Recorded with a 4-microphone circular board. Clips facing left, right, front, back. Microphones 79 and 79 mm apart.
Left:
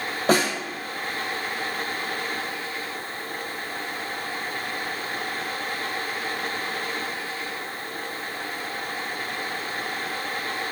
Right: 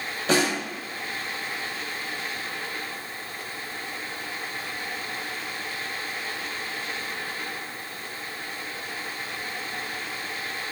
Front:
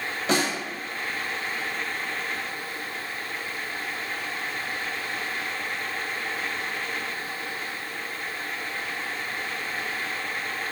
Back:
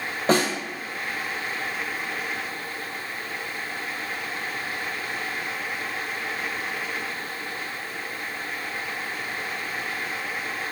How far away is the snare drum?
About 0.8 m.